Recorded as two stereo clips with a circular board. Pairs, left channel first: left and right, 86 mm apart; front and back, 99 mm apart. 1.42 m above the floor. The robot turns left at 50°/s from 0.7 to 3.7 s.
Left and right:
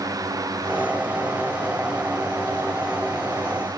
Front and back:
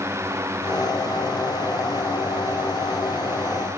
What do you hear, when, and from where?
Only background noise.